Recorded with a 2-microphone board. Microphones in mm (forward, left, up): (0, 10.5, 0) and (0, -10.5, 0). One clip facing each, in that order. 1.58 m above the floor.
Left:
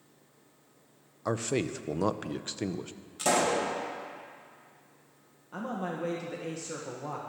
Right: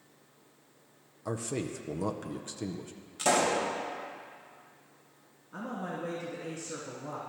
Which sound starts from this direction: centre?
A pop, at 3.2 s.